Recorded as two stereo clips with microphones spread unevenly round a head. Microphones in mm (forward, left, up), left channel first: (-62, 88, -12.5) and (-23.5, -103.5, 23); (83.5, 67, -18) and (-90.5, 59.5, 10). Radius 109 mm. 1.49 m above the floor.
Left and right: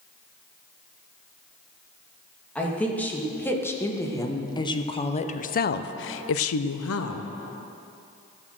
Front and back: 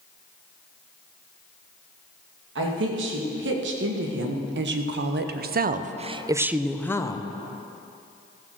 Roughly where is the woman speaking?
Behind.